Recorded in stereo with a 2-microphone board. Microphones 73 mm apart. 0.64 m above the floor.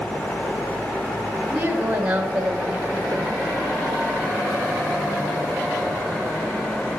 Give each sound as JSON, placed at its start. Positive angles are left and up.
{"t": 1.5, "sound": "a woman speaking", "side_deg": -30, "distance_m": 1.9}